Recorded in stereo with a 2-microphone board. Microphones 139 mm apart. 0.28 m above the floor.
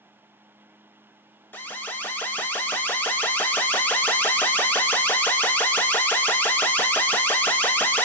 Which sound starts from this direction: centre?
An alarm, at 1.5 s.